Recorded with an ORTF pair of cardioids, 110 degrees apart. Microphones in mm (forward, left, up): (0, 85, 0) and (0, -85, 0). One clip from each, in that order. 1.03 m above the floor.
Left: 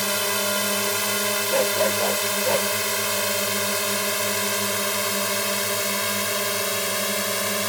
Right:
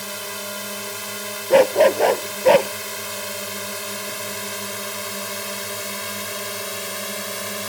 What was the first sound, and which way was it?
A drone, 40° left.